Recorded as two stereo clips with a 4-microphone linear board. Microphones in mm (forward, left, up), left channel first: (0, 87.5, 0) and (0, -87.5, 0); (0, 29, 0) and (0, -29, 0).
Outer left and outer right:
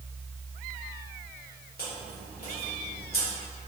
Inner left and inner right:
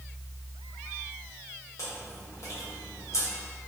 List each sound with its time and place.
1.8 s chewing: 60° left (ahead or behind), 1.2 m